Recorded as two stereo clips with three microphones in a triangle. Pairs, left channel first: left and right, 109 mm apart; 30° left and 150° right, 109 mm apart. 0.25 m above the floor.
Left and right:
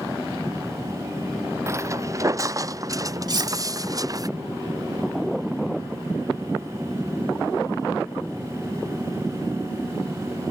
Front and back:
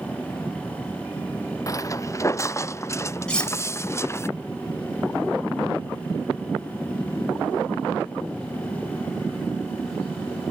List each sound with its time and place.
1.7 s footsteps: 30° right; by 4.3 s 35° right
3.3 s cutlery clinking: 50° right